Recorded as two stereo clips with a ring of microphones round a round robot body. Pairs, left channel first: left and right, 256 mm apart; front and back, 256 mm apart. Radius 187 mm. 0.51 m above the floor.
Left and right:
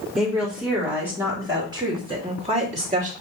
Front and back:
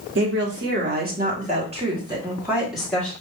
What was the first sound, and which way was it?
A woman speaking, straight behind.